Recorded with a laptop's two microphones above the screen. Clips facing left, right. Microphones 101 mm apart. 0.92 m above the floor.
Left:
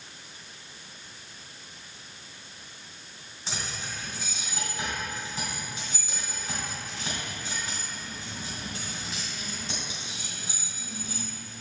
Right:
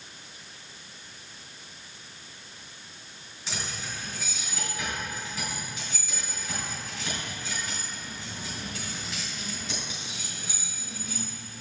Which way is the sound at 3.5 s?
40° left (ahead or behind).